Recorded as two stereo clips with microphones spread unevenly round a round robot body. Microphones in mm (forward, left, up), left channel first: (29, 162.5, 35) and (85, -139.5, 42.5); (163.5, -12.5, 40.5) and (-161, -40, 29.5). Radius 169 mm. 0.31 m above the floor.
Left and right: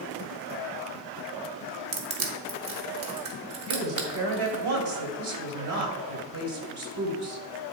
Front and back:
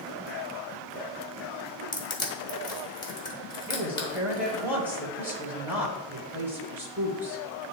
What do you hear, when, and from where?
1.9 s crushing: 70° right, 1.7 m
3.7 s a woman speaking: 95° right, 2 m